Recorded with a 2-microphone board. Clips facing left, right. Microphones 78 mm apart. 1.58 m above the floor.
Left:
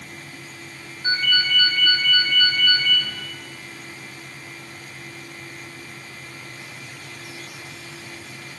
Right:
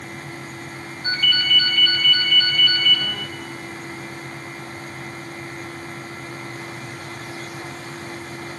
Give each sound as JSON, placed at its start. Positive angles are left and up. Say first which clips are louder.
{"t": 1.0, "sound": "a ringtone", "louder": "left 1 dB", "side_deg": 20, "distance_m": 3.0}